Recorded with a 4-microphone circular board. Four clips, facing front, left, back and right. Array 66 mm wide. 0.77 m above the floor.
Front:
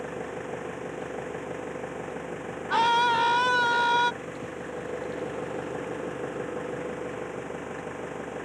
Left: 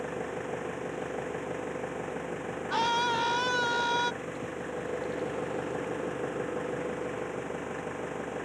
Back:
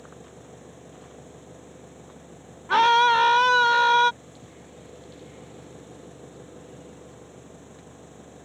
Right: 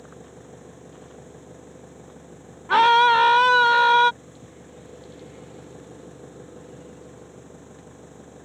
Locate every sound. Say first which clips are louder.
0.0 s an engine running: left 10 dB, front 12 dB; 45° left
2.7 s a scream: right 13 dB, back 5 dB; 110° right